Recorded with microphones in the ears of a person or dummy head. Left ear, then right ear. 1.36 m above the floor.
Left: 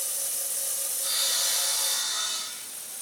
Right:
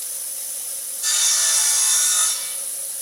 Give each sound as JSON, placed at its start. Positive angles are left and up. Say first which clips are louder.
{"t": 1.0, "sound": "sawing", "louder": "right 7 dB", "side_deg": -60, "distance_m": 3.0}